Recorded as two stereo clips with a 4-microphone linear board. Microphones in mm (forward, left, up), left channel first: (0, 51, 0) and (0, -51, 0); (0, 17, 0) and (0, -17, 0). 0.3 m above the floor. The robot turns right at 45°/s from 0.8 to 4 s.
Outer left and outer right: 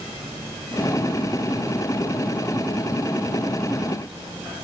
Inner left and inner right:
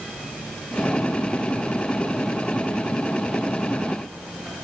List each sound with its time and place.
Only background noise.